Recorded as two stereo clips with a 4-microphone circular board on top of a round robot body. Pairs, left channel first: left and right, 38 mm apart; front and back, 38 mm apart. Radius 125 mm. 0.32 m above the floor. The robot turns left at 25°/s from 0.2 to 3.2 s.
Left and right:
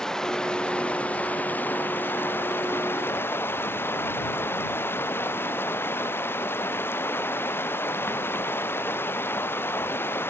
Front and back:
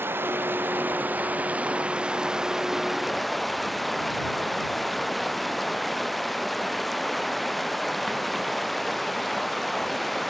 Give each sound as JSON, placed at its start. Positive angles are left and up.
{"t": 0.0, "sound": "running water", "azimuth_deg": 165}